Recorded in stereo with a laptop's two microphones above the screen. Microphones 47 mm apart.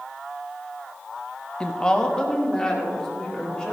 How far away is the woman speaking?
About 0.6 m.